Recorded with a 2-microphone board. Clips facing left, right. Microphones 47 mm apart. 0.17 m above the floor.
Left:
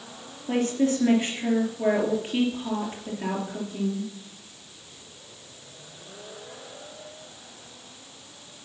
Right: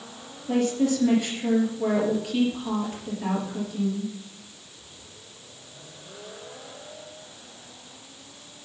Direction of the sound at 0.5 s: 35° left (ahead or behind).